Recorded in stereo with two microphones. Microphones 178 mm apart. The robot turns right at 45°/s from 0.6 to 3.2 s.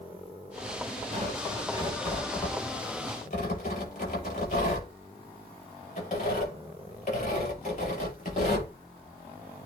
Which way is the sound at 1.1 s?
45° right (ahead or behind).